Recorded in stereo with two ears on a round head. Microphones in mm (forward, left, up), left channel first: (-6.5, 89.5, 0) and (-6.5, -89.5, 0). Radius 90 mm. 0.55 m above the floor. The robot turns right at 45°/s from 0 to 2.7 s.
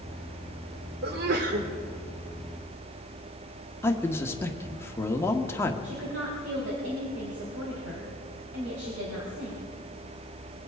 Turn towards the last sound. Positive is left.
turn(degrees=-70)  # may be behind; listen again after turning